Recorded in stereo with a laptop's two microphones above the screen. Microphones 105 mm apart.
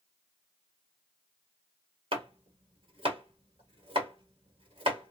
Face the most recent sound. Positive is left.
turn(degrees=-65)  # may be behind; listen again after turning